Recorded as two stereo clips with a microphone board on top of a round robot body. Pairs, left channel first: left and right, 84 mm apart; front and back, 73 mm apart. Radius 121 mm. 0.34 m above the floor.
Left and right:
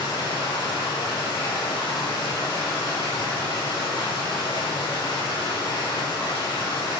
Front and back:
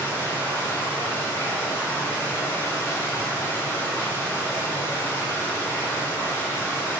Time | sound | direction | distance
0.0 | running water | 60° left | 7 m